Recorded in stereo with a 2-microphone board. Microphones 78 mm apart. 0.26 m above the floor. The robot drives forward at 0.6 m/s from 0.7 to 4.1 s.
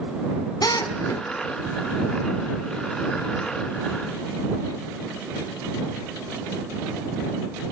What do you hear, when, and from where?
0.6 s a drill: 60° left (ahead or behind), 1.8 m